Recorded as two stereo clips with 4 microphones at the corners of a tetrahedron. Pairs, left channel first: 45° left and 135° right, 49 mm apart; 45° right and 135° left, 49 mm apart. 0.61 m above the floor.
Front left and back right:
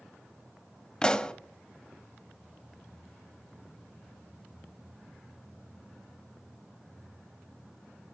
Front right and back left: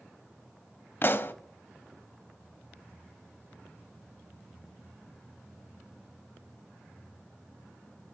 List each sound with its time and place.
1.0 s a pop: 20° right, 0.5 m